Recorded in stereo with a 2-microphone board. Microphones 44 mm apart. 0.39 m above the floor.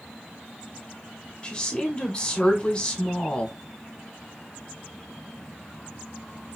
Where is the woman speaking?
25° left (ahead or behind), 1.1 m.